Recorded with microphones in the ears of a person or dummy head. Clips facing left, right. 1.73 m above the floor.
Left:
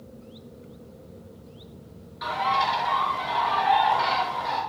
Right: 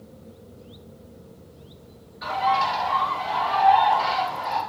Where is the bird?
70° left (ahead or behind), 5 m.